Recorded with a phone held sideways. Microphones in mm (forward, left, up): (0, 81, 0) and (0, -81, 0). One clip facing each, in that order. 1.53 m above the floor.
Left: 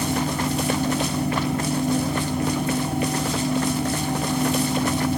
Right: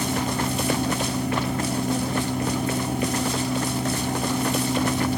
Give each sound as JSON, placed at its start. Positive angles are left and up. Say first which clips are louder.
{"t": 0.0, "sound": "a fan", "louder": "left 1 dB", "side_deg": 45, "distance_m": 0.9}